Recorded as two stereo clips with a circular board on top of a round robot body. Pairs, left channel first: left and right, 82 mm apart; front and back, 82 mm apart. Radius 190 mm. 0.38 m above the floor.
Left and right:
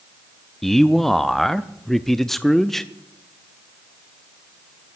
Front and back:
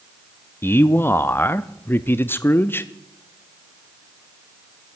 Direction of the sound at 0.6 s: 5° left.